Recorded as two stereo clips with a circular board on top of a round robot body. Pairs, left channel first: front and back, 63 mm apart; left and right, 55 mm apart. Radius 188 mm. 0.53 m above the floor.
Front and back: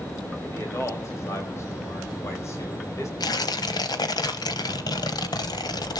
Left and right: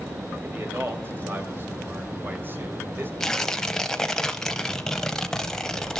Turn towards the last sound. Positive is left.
turn(degrees=10)